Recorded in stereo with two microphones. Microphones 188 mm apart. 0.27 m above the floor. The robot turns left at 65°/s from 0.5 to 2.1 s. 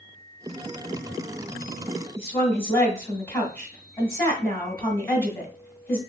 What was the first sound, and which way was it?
A woman speaking, 15° left (ahead or behind).